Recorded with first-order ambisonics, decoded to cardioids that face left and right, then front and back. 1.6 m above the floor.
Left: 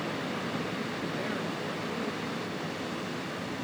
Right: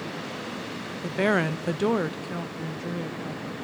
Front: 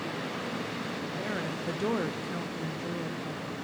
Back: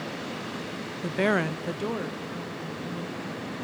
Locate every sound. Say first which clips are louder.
1.0 s a woman speaking: right 14 dB, back 12 dB; 150° right, 0.6 m; by 3.5 s 50° right, 1.9 m